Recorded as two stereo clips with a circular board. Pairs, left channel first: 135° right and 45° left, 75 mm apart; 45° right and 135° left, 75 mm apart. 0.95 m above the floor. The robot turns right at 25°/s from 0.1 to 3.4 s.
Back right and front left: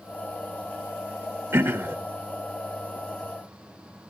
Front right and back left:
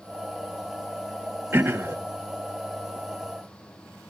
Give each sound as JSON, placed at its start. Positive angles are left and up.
{"t": 1.5, "sound": "throat clearing", "azimuth_deg": 85, "distance_m": 1.0}